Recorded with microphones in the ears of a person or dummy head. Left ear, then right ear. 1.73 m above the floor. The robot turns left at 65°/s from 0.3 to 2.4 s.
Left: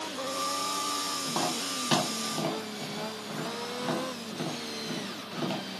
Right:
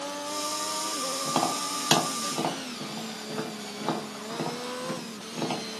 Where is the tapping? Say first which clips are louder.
Right 3 dB; 75° right (ahead or behind), 0.9 m; by 5.6 s 25° right (ahead or behind), 0.9 m.